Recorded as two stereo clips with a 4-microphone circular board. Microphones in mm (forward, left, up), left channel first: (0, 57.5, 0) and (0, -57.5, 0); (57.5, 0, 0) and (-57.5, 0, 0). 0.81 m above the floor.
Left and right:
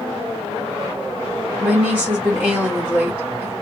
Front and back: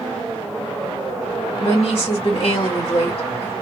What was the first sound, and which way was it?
A woman speaking, 15° right.